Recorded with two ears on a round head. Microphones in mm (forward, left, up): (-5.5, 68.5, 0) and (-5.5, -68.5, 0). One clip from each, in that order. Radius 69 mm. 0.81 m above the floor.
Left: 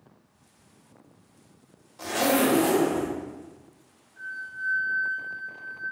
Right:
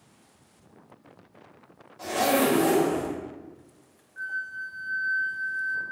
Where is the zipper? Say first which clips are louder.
Even; 35° left (ahead or behind), 0.7 m.